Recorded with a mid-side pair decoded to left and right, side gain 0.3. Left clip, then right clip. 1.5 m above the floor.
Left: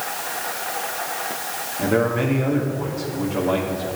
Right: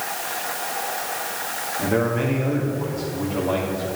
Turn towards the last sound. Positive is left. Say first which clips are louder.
# left 2 dB
turn(degrees=25)